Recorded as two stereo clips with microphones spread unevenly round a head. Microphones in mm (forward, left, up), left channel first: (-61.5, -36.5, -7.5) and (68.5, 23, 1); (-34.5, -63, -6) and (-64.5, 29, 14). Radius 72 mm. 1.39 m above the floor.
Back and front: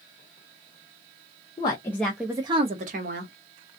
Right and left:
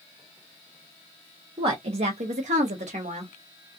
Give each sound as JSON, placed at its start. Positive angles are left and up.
{"t": 1.6, "sound": "a woman speaking", "azimuth_deg": 145, "distance_m": 0.7}